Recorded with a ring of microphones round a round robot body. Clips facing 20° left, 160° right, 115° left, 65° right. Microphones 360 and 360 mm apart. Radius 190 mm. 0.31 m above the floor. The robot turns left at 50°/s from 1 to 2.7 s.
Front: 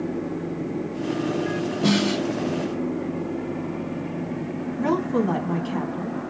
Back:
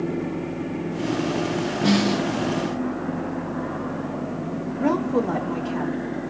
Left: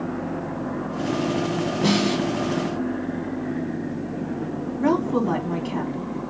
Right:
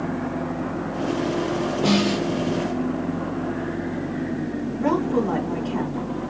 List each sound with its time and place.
1.8 s a snare drum: 90° left, 2.5 m; by 2.2 s 70° left, 2.5 m
4.8 s a woman speaking: 75° left, 3 m